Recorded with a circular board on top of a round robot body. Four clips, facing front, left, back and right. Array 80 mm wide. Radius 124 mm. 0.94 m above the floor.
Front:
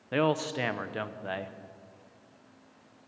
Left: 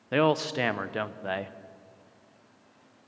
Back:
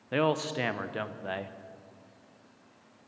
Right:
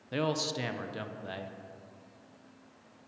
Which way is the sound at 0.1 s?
90° left.